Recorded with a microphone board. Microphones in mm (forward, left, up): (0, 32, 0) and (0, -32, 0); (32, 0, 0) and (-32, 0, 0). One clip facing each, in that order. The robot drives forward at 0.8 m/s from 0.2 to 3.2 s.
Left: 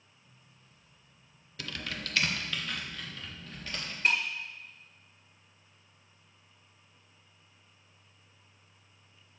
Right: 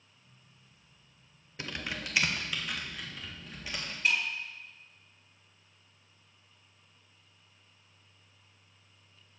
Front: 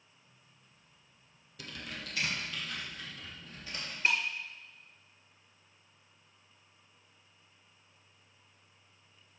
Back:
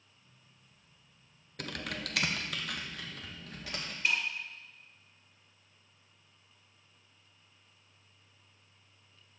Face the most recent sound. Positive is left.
turn(degrees=50)